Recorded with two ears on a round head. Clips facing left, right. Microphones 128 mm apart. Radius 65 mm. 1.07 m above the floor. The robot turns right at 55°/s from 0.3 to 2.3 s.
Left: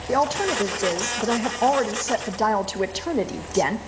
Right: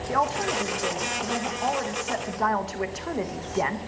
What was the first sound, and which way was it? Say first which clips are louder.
A woman speaking: left 4 dB; 35° left.